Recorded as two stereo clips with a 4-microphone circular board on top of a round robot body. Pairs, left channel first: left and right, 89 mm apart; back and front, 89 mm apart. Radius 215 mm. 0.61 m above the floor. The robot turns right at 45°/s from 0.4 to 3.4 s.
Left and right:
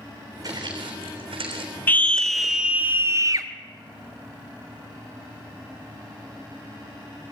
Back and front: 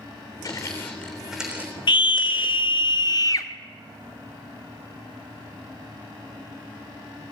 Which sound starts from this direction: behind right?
Footsteps, at 0.4 s.